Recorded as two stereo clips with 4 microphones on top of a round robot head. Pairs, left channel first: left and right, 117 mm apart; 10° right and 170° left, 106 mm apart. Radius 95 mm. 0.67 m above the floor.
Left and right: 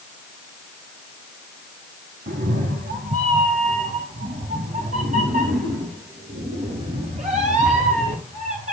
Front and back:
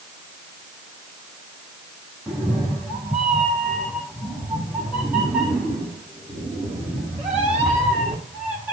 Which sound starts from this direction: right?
A cat meowing, at 2.3 s.